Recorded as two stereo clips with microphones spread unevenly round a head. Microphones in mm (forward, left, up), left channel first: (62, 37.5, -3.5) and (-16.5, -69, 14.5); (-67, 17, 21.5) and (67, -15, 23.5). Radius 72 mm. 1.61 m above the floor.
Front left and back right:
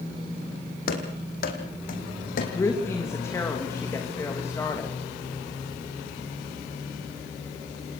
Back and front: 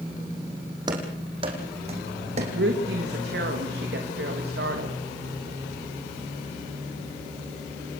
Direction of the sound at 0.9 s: 45° left.